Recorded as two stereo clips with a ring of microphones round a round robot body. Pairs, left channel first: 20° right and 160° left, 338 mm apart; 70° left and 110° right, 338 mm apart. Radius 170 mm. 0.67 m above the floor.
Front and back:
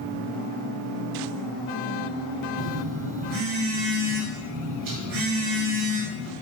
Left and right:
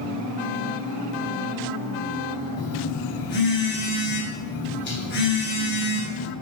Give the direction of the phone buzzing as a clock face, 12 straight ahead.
8 o'clock.